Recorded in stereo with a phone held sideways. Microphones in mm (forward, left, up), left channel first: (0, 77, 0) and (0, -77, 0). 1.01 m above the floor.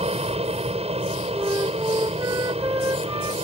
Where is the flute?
25° right (ahead or behind).